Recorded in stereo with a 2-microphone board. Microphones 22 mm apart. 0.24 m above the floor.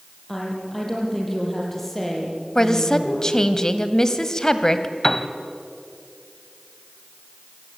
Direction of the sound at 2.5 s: 20° left (ahead or behind).